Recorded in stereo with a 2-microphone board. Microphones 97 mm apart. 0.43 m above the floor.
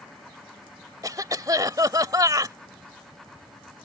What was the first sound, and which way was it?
A cough, 40° right (ahead or behind).